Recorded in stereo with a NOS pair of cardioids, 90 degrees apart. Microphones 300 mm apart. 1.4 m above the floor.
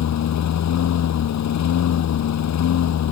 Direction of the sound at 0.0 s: 65° left.